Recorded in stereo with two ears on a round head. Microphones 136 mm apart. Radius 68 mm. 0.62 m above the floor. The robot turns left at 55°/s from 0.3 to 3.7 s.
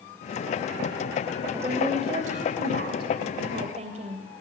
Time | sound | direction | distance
1.5 | a woman speaking | 15° right | 3 m